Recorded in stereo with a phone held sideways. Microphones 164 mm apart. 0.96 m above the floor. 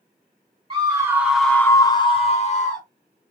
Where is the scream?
30° right (ahead or behind), 0.9 m; by 2.9 s 50° left (ahead or behind), 1.2 m.